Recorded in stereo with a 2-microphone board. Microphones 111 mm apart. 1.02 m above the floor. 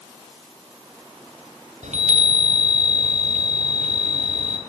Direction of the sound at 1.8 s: 70° right (ahead or behind).